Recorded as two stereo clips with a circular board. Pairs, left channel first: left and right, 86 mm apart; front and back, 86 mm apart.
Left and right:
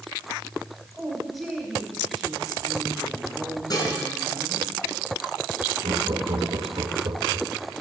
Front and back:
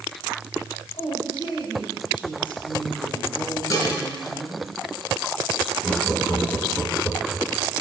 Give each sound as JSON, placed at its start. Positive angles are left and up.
{"t": 0.9, "sound": "a woman speaking", "azimuth_deg": 0, "distance_m": 4.5}
{"t": 3.7, "sound": "dishes clattering", "azimuth_deg": 50, "distance_m": 3.5}
{"t": 5.8, "sound": "laughter", "azimuth_deg": -85, "distance_m": 2.0}